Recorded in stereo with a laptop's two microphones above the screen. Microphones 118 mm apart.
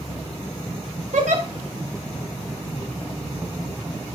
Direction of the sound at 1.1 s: 85° right.